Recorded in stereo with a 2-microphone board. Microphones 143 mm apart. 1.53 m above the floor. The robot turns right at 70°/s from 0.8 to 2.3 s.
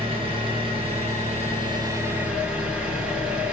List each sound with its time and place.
0.0 s an engine running: 115° right, 0.8 m; by 3.5 s 10° right, 0.8 m